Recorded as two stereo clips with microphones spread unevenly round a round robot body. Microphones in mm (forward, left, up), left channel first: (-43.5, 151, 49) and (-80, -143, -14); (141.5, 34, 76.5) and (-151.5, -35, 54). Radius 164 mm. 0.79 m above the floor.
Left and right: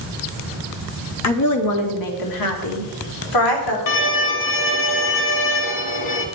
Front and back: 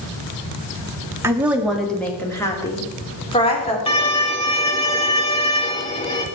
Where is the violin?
85° left, 1.5 m.